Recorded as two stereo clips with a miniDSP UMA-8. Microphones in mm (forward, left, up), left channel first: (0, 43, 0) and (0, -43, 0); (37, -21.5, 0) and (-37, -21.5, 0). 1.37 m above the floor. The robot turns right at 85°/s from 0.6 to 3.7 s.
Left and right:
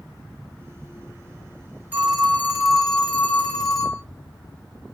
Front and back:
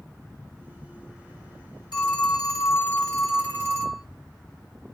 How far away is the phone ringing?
About 1.4 m.